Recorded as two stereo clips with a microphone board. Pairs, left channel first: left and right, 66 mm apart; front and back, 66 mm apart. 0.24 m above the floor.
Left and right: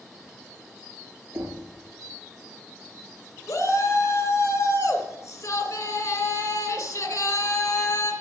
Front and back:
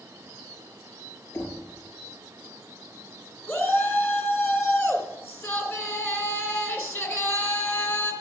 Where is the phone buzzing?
No phone buzzing in this recording.